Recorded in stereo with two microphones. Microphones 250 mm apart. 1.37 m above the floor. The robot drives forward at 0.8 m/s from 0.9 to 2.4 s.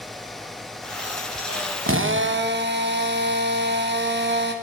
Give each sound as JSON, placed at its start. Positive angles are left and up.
{"t": 1.9, "sound": "a drill", "side_deg": -55, "distance_m": 0.8}